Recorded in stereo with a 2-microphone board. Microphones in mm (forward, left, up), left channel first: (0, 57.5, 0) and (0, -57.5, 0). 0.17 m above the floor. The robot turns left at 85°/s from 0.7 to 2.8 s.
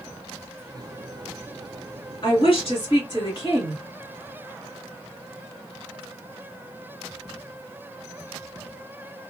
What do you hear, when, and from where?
2.2 s a woman speaking: 115° left, 1.8 m; by 3.8 s 65° left, 1.8 m